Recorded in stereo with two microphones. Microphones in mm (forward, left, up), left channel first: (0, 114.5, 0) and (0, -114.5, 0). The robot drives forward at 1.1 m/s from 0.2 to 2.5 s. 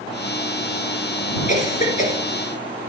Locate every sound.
1.5 s a cough: 35° left (ahead or behind), 1.9 m